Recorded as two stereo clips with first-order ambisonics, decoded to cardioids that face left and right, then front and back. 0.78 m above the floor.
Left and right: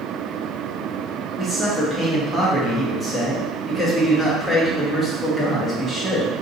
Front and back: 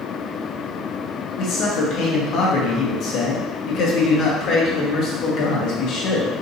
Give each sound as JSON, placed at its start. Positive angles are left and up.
{"t": 1.4, "sound": "a man speaking", "azimuth_deg": 5, "distance_m": 1.0}